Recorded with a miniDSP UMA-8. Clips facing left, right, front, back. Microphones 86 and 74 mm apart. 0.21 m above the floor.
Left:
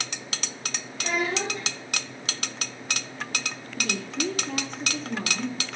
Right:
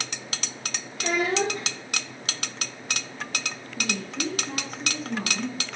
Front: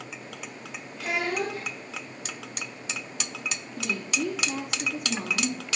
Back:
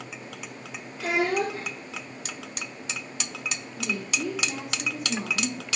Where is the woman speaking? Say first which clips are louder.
Left 1 dB, front 1 dB; 5° right, 2.5 m.